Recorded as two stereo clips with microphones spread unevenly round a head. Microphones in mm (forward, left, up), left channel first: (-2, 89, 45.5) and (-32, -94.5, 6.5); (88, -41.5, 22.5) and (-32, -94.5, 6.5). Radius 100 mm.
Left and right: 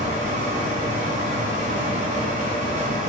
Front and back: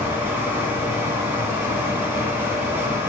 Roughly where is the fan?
Right.